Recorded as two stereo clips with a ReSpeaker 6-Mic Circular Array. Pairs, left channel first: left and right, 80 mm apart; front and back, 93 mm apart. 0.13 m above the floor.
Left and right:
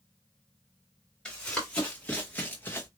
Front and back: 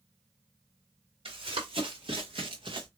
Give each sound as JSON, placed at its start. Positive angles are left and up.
{"t": 1.2, "sound": "running footsteps", "azimuth_deg": 165, "distance_m": 2.0}